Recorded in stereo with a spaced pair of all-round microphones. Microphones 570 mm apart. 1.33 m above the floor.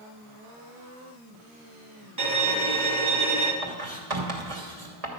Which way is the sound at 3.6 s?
75° right (ahead or behind).